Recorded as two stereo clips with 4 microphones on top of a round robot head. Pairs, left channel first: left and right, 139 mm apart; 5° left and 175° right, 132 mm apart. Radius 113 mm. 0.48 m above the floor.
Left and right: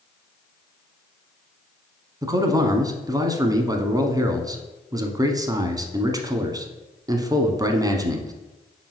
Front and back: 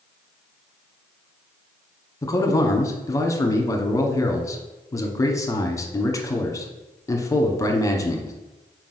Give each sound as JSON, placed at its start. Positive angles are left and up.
{"t": 2.2, "sound": "a man speaking", "azimuth_deg": -45, "distance_m": 1.0}